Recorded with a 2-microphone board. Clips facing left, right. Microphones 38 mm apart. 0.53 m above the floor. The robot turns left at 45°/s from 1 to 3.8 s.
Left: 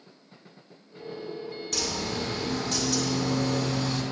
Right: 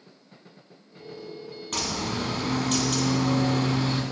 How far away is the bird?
About 1.0 m.